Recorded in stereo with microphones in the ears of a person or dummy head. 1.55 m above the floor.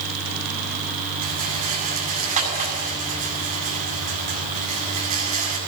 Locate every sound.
1.2 s a rattle: 45° right (ahead or behind), 7.5 m